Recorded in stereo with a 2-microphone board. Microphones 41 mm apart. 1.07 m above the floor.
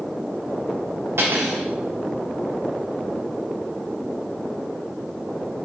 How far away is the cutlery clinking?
About 1.6 m.